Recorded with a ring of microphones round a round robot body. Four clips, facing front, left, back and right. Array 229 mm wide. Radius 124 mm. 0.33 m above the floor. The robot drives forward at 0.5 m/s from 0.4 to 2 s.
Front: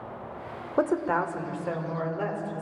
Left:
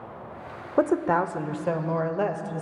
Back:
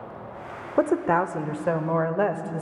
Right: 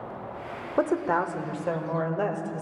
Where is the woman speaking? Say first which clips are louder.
Left 3 dB, back 4 dB; 130° left, 0.9 m; by 2.6 s 165° left, 1.2 m.